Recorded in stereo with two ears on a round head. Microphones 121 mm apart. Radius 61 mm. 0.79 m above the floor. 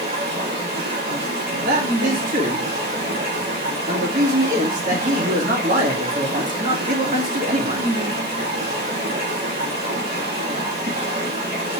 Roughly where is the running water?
Right.